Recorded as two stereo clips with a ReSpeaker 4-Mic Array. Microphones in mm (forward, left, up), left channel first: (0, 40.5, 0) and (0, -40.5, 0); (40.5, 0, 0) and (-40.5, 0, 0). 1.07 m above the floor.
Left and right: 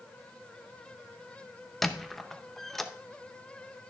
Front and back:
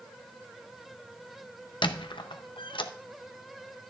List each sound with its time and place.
1.8 s a squeak: 5° left, 0.6 m